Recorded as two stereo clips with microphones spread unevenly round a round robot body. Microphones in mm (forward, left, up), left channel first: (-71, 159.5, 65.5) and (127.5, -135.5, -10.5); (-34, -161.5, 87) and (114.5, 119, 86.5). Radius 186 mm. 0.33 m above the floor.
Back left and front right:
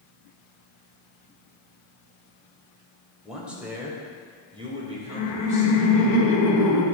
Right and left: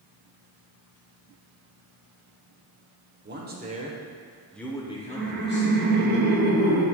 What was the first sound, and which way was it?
A man speaking, 20° left.